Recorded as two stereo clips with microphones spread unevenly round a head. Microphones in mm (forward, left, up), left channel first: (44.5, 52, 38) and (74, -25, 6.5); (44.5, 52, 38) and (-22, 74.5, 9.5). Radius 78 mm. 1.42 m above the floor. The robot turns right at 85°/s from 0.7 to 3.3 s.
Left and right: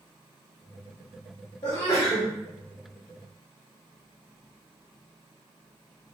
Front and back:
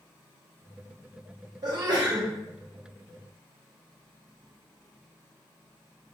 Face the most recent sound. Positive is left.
turn(degrees=-45)